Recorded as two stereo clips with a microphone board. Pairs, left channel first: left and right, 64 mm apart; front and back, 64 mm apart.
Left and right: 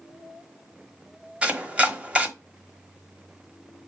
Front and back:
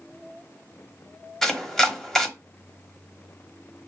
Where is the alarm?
I don't hear an alarm.